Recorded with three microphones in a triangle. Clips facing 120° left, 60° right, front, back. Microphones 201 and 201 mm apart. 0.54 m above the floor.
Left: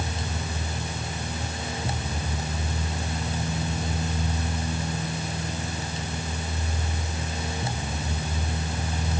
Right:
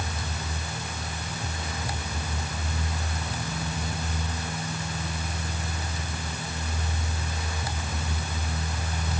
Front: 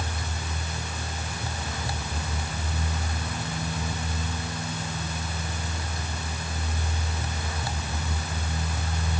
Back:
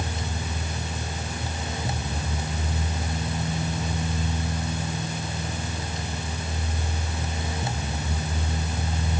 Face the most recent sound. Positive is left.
No sound to turn to.